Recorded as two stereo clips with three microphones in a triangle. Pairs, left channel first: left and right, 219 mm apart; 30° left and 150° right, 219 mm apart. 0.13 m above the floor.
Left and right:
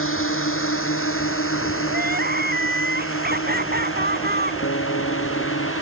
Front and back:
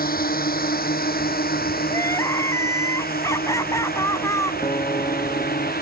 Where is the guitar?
100° left.